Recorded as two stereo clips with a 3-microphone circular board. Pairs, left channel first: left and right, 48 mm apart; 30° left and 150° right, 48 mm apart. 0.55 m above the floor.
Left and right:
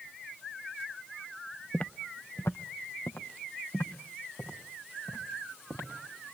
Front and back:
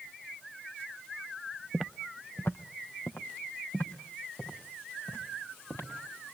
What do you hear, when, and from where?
1.7 s footsteps: 155° left, 0.5 m; by 5.9 s 60° left, 6 m